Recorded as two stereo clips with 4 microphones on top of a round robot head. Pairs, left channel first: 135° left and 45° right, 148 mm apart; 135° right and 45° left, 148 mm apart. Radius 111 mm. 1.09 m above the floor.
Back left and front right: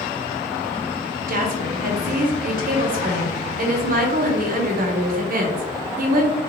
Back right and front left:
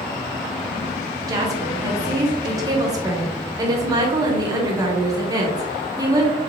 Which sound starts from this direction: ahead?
A woman speaking, at 1.3 s.